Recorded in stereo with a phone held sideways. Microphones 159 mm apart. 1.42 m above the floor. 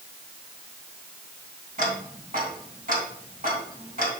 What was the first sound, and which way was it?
Ticking, 55° right (ahead or behind).